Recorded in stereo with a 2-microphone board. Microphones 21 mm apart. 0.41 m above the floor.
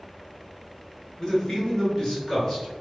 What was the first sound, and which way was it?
A man speaking, 25° left (ahead or behind).